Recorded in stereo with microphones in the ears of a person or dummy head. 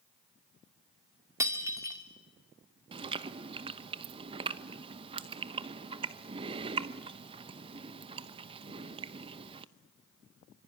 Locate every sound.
1.4 s breaking glass: 20° right (ahead or behind), 1.9 m
2.9 s chewing: 25° right (ahead or behind), 0.9 m